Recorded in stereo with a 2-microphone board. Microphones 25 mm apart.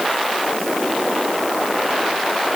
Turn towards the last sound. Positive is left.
No sound to turn to.